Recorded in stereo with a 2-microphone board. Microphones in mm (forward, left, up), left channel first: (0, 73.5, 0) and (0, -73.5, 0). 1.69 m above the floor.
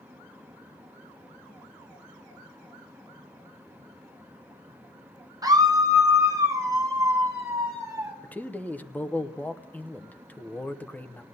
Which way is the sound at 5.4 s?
25° right (ahead or behind).